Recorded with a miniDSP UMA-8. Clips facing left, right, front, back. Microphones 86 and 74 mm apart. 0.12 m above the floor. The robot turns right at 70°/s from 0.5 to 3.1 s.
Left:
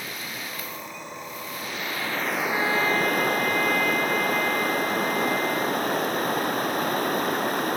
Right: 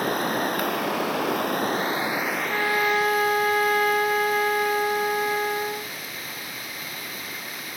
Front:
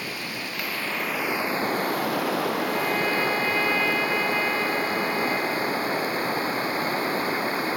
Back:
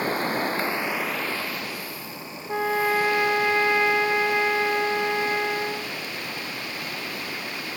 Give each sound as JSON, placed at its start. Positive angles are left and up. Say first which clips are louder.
{"t": 0.0, "sound": "running water", "louder": "right 12 dB, back 8 dB", "azimuth_deg": -130}
{"t": 2.5, "sound": "a trumpet", "louder": "right 1 dB, back 2 dB", "azimuth_deg": -175}